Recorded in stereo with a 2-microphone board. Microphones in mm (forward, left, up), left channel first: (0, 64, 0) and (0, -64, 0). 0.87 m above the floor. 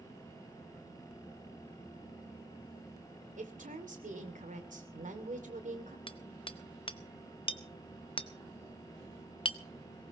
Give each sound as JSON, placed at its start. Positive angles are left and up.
{"t": 3.4, "sound": "a woman speaking", "side_deg": -80, "distance_m": 2.5}
{"t": 6.1, "sound": "hammering", "side_deg": 45, "distance_m": 0.8}